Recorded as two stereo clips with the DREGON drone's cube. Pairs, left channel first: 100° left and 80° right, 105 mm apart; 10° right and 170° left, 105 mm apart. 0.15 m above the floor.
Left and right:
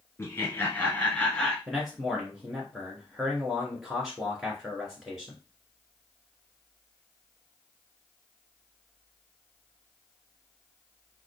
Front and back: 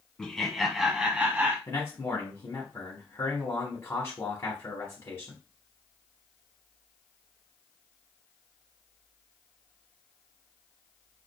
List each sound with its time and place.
0.2 s laughter: 70° left, 1.2 m; by 1.6 s 165° left, 1.0 m
1.7 s a man speaking: 5° left, 1.2 m